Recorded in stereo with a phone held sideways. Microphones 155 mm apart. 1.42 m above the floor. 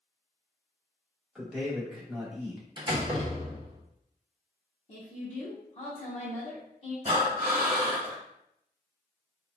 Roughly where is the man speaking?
Centre.